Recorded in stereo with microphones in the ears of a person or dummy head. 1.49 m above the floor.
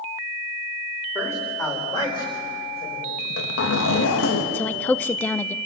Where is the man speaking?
10° left (ahead or behind), 4 m; by 3.1 s 30° left (ahead or behind), 6 m.